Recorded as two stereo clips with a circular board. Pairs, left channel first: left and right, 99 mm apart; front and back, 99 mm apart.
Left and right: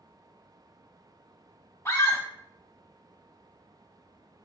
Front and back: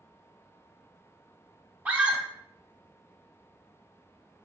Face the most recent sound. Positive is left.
turn(degrees=120)